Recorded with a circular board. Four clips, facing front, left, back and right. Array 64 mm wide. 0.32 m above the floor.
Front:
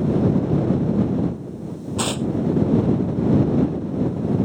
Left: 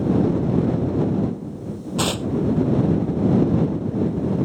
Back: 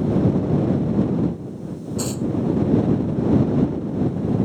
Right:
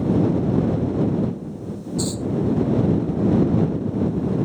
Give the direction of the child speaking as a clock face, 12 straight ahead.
No child speaking in this recording.